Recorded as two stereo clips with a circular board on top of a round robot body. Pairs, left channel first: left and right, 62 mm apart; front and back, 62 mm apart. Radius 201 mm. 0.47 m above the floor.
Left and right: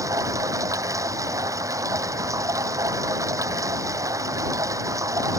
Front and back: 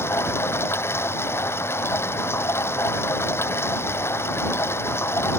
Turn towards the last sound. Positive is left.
turn(degrees=-55)